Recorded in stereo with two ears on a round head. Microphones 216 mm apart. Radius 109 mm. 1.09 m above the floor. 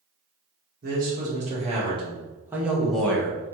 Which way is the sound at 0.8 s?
40° right (ahead or behind).